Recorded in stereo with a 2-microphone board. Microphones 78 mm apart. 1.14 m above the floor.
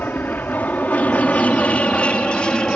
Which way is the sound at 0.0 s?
25° left (ahead or behind).